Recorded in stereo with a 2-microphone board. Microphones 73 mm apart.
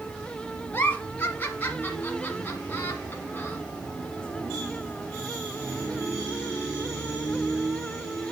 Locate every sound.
0.7 s a giggle: 30° left (ahead or behind), 1.4 m